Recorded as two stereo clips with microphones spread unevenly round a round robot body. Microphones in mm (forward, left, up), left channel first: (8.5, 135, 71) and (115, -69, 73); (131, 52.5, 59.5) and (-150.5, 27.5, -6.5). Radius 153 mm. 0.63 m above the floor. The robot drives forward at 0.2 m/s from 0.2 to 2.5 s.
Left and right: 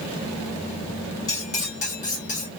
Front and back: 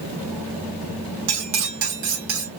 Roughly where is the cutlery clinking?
Behind.